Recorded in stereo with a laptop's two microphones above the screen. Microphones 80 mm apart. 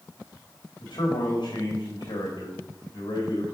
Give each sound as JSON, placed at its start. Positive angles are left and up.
{"t": 0.8, "sound": "a man speaking", "side_deg": 80, "distance_m": 1.9}